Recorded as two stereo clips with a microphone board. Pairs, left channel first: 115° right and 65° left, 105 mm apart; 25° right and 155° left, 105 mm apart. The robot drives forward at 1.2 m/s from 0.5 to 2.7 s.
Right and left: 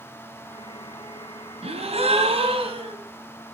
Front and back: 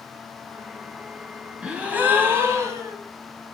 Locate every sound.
1.6 s a gasp: 75° left, 4 m; by 3.0 s 95° left, 4 m